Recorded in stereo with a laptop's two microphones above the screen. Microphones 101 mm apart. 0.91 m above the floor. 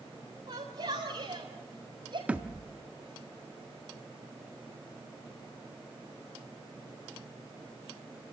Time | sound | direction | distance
0.5 | a shout | 70° right (ahead or behind) | 3.5 m
2.3 | a thud | 15° right (ahead or behind) | 0.7 m